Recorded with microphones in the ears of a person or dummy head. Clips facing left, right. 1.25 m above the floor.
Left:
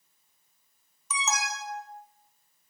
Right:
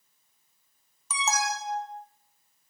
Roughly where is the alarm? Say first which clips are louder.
Right 3 dB; right.